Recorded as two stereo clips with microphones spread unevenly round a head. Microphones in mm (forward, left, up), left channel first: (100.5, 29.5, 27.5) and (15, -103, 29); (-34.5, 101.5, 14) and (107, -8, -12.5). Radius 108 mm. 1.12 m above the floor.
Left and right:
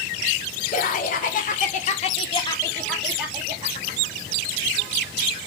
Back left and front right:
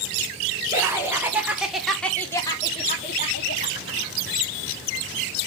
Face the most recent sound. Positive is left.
turn(degrees=-175)